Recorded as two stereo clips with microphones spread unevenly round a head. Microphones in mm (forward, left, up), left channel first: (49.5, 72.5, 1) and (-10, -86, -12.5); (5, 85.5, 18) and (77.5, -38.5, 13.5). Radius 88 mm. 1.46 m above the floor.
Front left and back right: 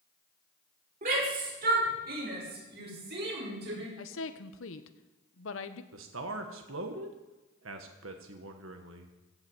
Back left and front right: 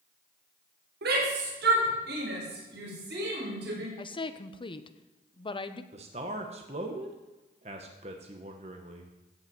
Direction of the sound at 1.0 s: 70° right.